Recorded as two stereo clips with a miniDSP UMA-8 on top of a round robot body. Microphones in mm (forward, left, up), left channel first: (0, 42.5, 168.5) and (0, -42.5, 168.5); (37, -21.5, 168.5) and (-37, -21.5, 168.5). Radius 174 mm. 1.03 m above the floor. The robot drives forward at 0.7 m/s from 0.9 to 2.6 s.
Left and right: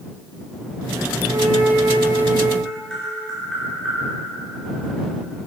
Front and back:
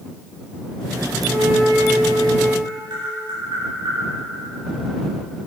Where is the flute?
95° right, 1.8 m; by 2.5 s 120° right, 2 m.